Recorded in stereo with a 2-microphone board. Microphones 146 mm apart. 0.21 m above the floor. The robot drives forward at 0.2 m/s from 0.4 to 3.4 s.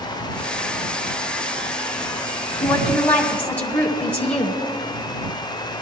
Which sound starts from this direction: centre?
A woman speaking, at 2.6 s.